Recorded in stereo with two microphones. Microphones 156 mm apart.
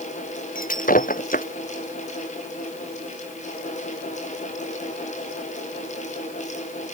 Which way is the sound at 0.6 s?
65° left (ahead or behind).